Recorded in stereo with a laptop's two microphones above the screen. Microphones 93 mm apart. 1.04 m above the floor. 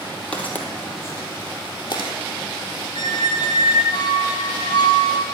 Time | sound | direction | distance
0.3 | footsteps | 15° left (ahead or behind) | 2 m
3.0 | a squeak | 45° left (ahead or behind) | 1.5 m